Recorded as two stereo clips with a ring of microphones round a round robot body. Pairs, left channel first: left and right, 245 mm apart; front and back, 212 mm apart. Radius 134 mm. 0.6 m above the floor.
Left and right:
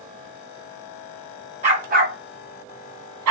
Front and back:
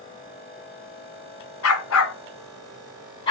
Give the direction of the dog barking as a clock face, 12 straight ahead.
1 o'clock.